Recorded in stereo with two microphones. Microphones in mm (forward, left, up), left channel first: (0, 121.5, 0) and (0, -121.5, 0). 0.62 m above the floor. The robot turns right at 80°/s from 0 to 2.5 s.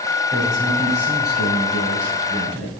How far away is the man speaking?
About 6.5 m.